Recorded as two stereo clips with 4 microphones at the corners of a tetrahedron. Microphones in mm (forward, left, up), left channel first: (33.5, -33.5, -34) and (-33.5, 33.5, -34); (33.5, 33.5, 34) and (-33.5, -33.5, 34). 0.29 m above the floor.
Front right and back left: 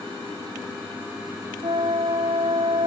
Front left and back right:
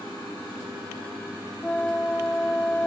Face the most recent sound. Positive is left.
turn(degrees=120)